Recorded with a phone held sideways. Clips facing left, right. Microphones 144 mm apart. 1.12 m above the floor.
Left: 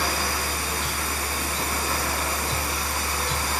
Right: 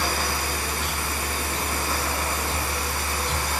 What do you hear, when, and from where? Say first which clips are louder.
0.0 s a machine running: even; 20° right (ahead or behind), 2 m